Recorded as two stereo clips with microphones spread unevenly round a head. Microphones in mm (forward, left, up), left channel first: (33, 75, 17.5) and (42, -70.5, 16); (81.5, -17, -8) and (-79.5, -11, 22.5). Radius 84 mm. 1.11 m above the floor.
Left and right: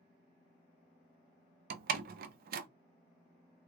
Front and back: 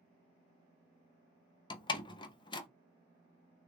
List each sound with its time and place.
1.7 s a door slam: 70° right, 0.5 m